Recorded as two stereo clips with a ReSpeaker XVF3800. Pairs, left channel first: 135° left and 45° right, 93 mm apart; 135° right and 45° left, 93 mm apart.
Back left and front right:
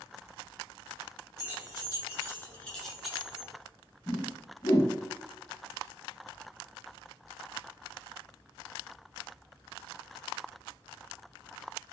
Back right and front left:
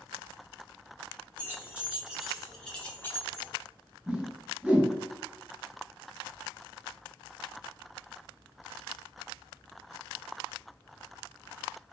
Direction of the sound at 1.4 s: 105° left.